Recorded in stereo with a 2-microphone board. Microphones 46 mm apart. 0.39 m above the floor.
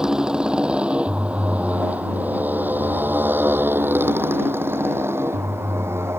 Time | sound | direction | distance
0.0 | a motorcycle | 15° right (ahead or behind) | ?